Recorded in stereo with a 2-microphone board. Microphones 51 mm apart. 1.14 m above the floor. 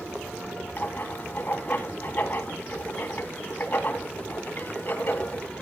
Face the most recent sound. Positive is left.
turn(degrees=40)  # may be behind; listen again after turning